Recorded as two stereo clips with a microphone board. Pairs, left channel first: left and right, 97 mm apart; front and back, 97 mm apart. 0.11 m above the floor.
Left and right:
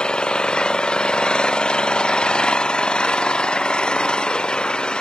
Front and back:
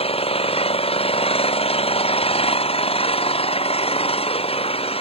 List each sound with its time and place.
0.0 s an engine running: 10° left